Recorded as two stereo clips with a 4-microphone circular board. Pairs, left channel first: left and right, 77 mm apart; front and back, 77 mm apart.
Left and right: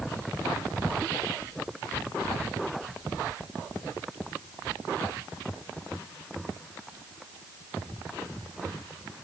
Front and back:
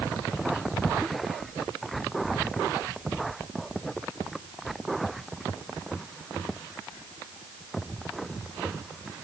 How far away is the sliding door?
No sliding door in this recording.